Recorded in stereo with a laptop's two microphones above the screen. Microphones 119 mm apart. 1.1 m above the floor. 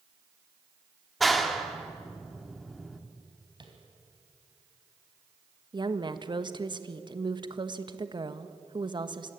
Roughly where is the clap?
Centre.